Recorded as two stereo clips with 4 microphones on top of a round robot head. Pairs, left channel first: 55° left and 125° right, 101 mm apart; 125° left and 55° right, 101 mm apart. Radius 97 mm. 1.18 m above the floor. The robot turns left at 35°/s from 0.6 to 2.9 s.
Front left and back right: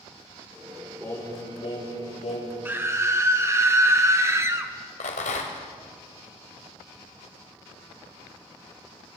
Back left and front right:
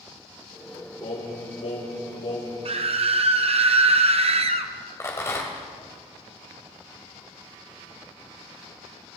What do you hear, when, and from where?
1.0 s singing: 125° left, 6 m; by 2.5 s 70° left, 6 m
2.6 s a scream: 50° right, 1.9 m; by 4.7 s 60° right, 1.9 m
5.0 s a rattle: 55° left, 2 m